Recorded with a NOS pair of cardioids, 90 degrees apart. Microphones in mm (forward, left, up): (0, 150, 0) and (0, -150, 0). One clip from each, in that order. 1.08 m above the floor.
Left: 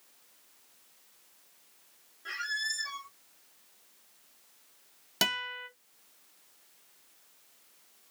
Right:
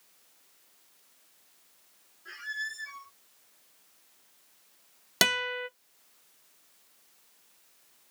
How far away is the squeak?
About 0.8 m.